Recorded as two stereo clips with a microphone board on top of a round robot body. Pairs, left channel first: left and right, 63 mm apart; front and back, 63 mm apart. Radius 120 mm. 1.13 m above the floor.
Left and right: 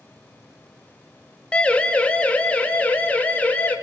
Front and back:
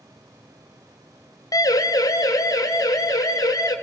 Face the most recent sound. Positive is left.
turn(degrees=20)